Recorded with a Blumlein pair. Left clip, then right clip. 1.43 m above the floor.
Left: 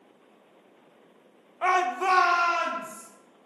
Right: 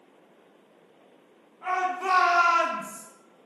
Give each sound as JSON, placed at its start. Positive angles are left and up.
{"t": 1.6, "sound": "a shout", "azimuth_deg": 55, "distance_m": 0.6}